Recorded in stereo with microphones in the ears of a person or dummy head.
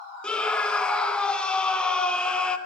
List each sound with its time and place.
0.2 s a scream: 5° left (ahead or behind), 0.6 m